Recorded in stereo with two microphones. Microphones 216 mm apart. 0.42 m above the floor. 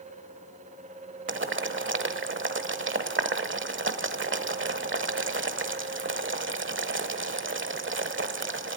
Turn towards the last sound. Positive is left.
turn(degrees=-65)  # may be behind; listen again after turning